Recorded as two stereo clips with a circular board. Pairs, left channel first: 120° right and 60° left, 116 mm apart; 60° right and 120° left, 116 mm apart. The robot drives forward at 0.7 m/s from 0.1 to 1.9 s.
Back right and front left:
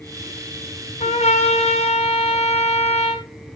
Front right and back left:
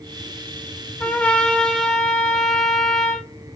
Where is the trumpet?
135° right, 2.5 m; by 3.2 s 145° right, 3 m.